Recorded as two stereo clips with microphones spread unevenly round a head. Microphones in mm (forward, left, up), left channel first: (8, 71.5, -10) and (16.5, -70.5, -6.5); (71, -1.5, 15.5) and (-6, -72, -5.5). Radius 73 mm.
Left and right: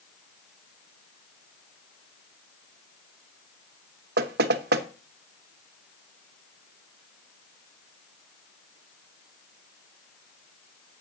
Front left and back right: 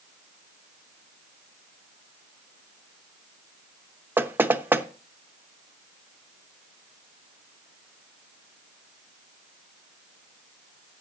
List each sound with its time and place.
4.2 s knocking: 65° right, 0.9 m